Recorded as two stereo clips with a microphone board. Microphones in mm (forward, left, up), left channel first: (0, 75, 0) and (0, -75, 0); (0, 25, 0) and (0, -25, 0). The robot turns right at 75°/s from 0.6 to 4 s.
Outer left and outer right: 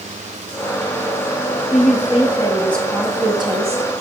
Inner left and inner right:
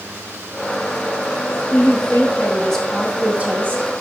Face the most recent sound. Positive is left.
turn(degrees=-95)